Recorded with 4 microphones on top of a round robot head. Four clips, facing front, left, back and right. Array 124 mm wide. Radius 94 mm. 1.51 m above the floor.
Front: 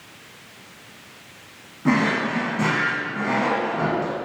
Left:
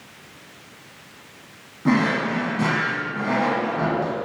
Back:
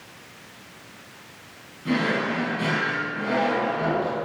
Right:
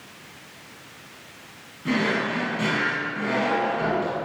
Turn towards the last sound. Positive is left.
turn(degrees=40)